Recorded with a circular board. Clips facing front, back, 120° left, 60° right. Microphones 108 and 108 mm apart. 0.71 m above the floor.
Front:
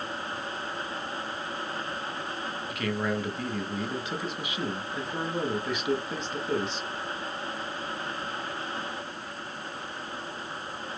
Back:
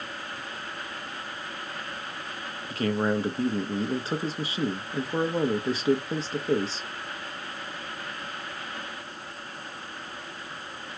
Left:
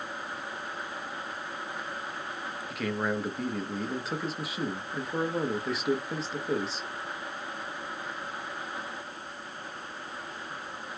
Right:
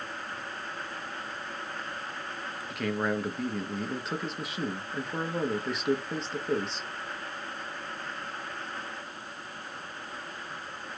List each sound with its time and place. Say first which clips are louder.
2.7 s a man speaking: back 5 dB, right 1 dB; 150° right, 1.1 m